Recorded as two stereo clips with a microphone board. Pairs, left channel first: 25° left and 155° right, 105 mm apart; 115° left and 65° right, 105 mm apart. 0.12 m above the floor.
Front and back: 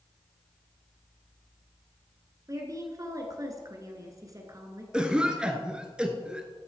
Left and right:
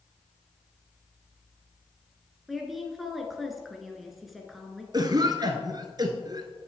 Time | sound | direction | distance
2.5 | a woman speaking | 155° right | 1.6 m
4.9 | a cough | 80° right | 1.4 m